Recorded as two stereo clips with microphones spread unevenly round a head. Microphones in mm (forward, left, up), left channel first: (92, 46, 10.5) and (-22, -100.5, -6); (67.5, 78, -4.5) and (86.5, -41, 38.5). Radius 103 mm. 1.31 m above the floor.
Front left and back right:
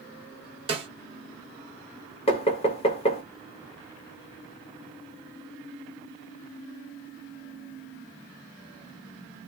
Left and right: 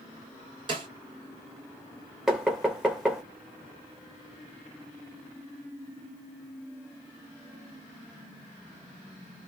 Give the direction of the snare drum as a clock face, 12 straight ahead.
2 o'clock.